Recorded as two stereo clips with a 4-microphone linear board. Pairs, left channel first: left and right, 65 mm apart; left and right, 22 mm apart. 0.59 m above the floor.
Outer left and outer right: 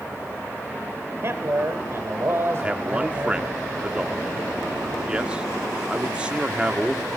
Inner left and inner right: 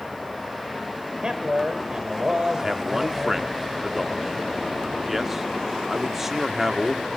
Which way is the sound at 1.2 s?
40° right (ahead or behind).